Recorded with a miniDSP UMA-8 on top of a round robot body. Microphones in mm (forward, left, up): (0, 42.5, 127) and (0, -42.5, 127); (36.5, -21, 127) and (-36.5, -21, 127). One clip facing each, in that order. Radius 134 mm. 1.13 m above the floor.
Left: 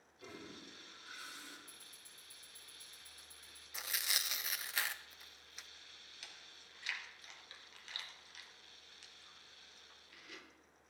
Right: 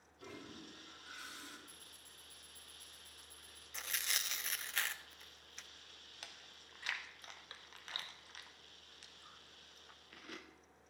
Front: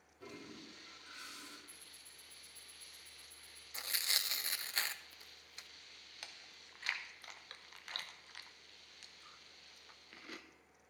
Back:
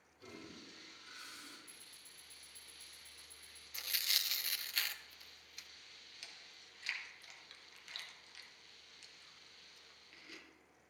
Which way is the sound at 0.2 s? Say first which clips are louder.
Even, front 2 dB; 25° right.